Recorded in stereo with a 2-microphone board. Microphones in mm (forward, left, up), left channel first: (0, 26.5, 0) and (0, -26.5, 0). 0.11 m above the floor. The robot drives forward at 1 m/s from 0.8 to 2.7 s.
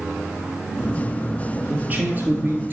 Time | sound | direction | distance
1.7 | a man speaking | 25° right (ahead or behind) | 2 m